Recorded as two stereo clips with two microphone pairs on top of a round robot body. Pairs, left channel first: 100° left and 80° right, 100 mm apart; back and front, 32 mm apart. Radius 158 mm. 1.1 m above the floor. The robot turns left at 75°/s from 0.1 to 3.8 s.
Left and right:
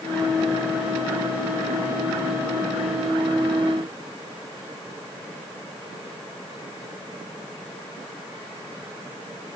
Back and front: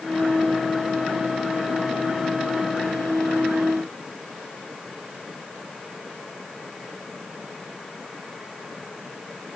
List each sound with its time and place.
Only background noise.